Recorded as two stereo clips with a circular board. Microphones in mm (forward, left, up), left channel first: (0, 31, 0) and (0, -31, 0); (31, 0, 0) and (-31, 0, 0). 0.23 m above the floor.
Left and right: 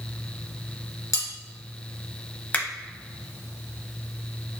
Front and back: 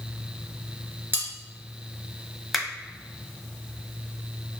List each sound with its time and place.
1.1 s cutlery clinking: 120° left, 2.0 m
2.5 s a finger snap: 85° left, 0.8 m